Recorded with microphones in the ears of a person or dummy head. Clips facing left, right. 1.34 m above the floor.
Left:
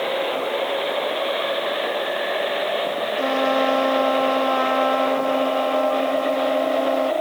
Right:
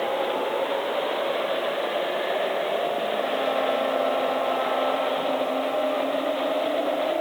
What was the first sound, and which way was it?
A trumpet, 85° left.